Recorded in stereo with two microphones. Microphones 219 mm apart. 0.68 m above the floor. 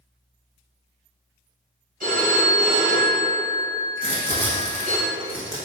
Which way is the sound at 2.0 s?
40° right (ahead or behind).